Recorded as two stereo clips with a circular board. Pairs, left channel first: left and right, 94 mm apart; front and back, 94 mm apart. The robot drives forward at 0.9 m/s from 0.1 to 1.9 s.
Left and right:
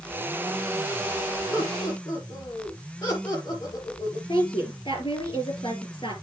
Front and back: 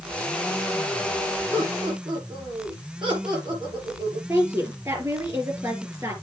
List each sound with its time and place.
1.5 s laughter: 145° left, 5 m
4.3 s a woman speaking: 120° left, 4.5 m